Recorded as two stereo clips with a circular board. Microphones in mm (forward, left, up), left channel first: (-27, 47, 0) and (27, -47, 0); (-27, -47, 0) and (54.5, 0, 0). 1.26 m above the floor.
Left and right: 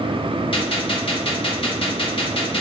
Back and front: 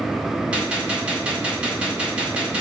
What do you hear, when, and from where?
0.5 s a gunshot: 105° left, 0.9 m